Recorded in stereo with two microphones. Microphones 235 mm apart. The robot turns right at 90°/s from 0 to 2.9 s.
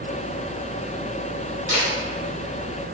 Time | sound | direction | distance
1.7 | a camera shutter | 35° right (ahead or behind) | 1.4 m